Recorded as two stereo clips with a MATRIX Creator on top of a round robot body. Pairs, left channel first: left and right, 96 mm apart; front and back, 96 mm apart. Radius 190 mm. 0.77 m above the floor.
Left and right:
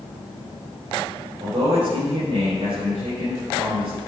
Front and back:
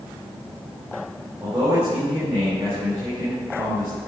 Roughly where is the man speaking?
Behind right.